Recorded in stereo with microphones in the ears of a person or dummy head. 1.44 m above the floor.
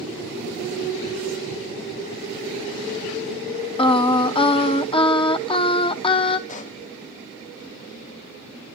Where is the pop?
45° left (ahead or behind), 0.7 m.